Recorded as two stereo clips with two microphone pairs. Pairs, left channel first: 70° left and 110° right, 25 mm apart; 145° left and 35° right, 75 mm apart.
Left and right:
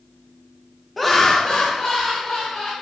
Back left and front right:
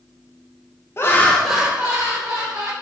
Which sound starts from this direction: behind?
Laughter, at 1.0 s.